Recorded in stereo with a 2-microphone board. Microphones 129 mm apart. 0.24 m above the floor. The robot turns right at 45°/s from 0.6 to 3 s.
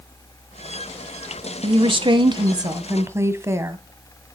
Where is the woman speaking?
95° right, 1.2 m; by 3.8 s 30° right, 1.2 m.